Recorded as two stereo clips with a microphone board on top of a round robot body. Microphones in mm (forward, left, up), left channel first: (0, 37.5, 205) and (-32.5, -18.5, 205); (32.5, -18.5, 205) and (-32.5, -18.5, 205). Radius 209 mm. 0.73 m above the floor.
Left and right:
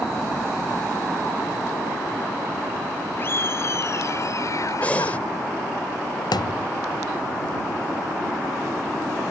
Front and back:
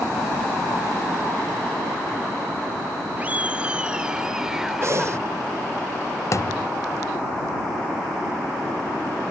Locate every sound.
3.2 s laughter: 115° left; by 5.2 s 90° left
4.8 s breathing: 130° left
6.3 s a thud: 45° left